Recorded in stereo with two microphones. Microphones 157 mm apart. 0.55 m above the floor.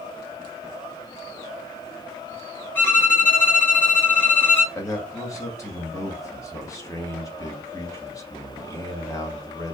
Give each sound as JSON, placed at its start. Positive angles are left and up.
{"t": 2.8, "sound": "a violin", "side_deg": 15, "distance_m": 1.6}
{"t": 4.8, "sound": "a man speaking", "side_deg": 20, "distance_m": 1.3}